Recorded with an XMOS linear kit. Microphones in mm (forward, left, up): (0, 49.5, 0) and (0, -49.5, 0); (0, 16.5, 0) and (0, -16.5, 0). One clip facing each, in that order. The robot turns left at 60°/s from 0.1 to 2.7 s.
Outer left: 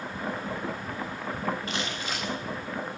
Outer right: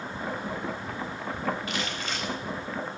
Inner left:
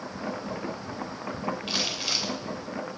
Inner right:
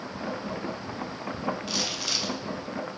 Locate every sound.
1.7 s crumpling: 35° left, 2.5 m; by 2.3 s 5° right, 2.5 m